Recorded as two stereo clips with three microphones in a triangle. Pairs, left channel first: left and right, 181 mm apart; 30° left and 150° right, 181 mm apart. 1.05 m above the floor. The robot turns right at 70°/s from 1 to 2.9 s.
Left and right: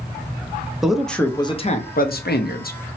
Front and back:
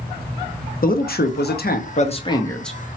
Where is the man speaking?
Straight ahead, 0.5 m; by 2.8 s 125° left, 0.5 m.